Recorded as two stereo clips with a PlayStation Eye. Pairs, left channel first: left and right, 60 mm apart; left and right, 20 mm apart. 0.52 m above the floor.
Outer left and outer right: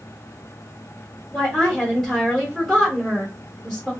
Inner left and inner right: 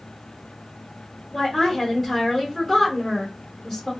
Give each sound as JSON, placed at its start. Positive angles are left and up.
{"t": 1.3, "sound": "a woman speaking", "side_deg": 0, "distance_m": 1.3}